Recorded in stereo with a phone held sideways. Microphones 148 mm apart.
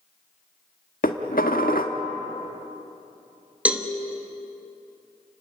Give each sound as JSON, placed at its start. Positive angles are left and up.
{"t": 1.0, "sound": "dishes clattering", "side_deg": 75, "distance_m": 1.5}
{"t": 3.6, "sound": "a cowbell", "side_deg": -10, "distance_m": 1.4}